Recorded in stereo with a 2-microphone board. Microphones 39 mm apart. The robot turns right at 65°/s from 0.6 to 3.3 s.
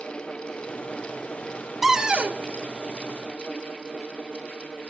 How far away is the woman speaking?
I don't hear a woman speaking.